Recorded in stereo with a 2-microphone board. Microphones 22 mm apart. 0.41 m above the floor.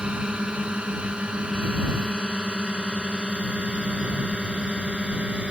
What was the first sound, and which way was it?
A drone, 55° right (ahead or behind).